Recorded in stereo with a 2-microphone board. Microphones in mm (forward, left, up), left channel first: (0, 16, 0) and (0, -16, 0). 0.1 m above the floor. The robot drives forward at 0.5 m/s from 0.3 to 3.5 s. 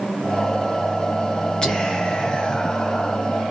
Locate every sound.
1.6 s whispering: 20° left (ahead or behind), 1.2 m